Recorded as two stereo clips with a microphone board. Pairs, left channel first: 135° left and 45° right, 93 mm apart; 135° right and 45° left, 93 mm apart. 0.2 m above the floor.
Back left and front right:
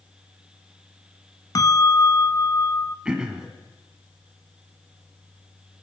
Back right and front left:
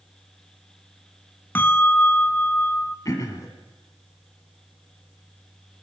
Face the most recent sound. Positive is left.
turn(degrees=-120)